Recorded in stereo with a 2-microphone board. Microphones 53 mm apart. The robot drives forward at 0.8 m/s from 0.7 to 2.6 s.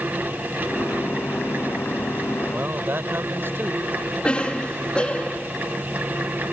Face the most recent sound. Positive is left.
turn(degrees=20)  # may be behind; listen again after turning